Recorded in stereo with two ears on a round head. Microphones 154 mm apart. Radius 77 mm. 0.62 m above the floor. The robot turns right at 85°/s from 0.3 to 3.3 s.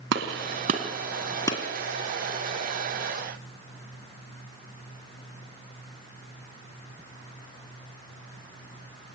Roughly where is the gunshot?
Right.